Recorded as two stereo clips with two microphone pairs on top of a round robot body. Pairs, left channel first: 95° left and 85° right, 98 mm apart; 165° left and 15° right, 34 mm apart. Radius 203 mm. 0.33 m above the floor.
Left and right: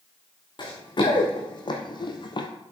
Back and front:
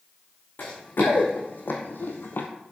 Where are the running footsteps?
135° left, 3.5 m; by 2.5 s 140° left, 0.8 m.